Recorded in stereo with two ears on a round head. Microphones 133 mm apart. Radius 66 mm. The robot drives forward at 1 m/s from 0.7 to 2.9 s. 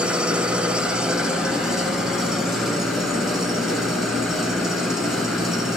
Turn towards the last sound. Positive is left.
turn(degrees=-5)  # may be behind; listen again after turning